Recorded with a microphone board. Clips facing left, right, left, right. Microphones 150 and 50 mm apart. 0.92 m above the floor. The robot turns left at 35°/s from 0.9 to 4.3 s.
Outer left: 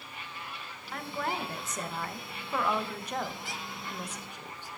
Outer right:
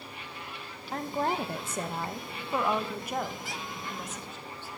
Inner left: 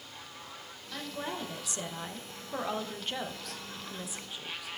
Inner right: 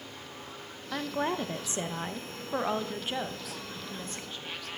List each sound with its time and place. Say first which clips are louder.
0.9 s a woman speaking: outer right 5 dB, inner right 7 dB; 90° right, 0.8 m; by 4.7 s 150° left, 0.8 m